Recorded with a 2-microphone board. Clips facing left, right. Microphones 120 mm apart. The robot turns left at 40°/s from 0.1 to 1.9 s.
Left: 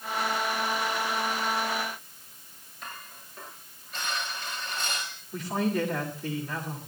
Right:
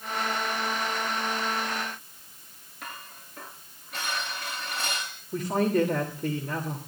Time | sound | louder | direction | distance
2.8 | dishes clattering | right 1 dB | 70° right (ahead or behind) | 9 m
5.3 | a man speaking | right 4 dB | 45° right (ahead or behind) | 2.5 m